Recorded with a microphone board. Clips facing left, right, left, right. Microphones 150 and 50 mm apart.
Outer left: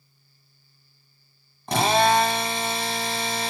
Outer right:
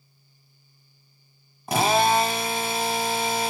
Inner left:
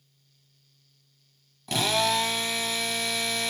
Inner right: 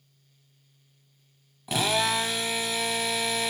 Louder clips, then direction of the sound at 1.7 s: Outer left 1 dB, even; 5° right (ahead or behind).